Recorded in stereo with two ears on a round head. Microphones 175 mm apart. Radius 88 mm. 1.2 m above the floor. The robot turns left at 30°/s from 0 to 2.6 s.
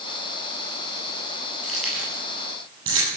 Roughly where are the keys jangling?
Centre.